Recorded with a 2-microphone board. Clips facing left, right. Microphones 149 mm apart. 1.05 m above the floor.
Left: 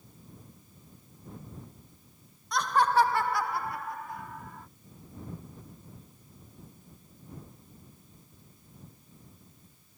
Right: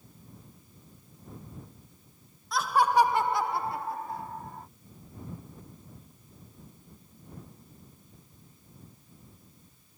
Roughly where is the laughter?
Centre.